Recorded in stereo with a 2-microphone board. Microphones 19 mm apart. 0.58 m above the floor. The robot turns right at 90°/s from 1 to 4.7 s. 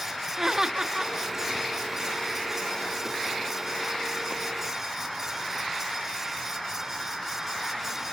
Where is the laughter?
15° right (ahead or behind), 1.3 m; by 1.1 s 10° right (ahead or behind), 1.3 m.